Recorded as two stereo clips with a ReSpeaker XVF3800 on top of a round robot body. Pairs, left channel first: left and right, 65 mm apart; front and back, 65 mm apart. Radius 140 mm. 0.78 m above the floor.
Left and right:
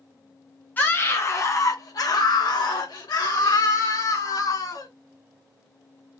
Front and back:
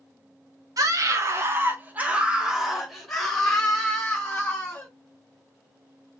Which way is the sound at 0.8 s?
150° left.